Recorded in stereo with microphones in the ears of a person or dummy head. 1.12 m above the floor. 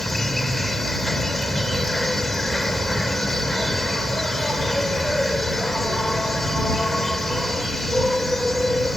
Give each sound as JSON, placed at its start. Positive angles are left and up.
{"t": 0.0, "sound": "an insect", "side_deg": 0}